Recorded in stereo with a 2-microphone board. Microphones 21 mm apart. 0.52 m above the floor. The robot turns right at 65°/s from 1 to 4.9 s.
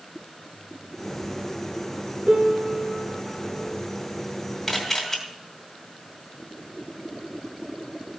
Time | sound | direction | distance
2.3 | a piano | 130° right | 1.8 m
4.7 | a camera shutter | 5° left (ahead or behind) | 2 m